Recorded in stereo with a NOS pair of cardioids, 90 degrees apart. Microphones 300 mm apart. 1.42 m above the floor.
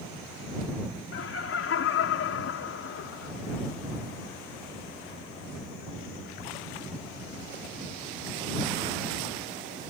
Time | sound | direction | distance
1.1 | laughter | 50° left | ?